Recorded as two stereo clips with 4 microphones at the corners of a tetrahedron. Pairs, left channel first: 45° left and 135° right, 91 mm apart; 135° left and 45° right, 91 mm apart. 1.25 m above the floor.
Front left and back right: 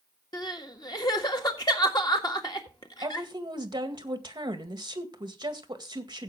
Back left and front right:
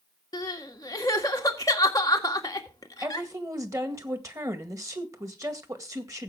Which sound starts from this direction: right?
A woman speaking, at 3.0 s.